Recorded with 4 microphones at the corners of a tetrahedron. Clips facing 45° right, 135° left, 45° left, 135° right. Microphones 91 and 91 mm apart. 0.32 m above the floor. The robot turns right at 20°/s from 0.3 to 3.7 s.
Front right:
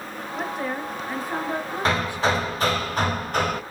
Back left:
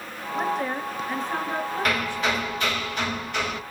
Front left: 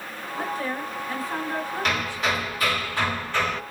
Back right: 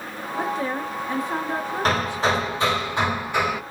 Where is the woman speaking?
125° right, 0.9 m; by 2.3 s 90° right, 0.9 m.